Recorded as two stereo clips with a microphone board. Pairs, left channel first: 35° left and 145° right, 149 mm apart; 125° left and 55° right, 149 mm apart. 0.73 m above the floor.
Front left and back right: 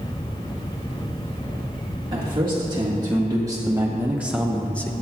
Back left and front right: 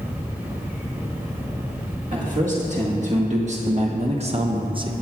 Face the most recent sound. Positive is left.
turn(degrees=-30)